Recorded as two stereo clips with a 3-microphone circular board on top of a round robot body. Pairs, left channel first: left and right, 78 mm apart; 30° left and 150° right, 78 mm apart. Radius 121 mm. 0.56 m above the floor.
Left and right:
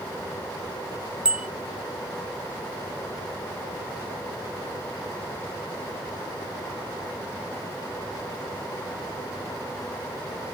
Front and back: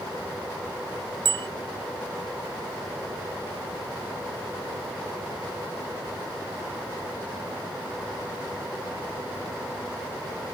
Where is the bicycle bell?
170° right.